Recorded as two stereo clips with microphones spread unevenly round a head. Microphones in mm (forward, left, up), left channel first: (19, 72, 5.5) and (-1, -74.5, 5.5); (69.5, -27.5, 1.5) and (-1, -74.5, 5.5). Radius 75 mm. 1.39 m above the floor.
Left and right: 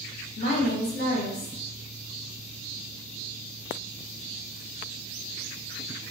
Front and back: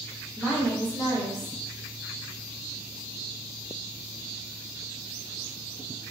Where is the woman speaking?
125° left, 1.1 m.